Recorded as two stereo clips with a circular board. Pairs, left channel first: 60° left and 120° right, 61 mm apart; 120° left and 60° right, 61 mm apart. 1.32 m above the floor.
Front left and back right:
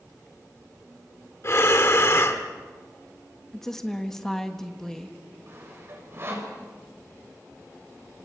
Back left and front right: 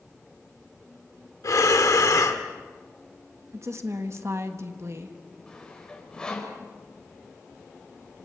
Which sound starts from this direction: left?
Breathing, at 1.4 s.